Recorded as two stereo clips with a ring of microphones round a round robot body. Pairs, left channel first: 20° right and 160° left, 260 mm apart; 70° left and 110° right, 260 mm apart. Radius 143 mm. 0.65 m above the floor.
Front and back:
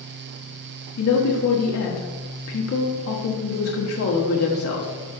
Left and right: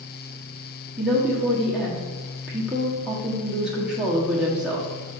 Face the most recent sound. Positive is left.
turn(degrees=-25)